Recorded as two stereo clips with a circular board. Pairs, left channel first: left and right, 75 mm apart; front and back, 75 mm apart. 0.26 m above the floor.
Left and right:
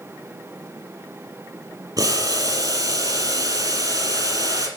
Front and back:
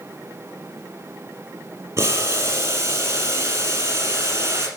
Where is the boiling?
125° right, 3.5 m.